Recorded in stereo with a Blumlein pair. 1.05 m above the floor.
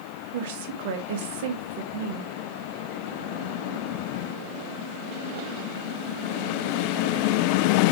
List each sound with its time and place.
0.3 s a woman speaking: 50° right, 1.4 m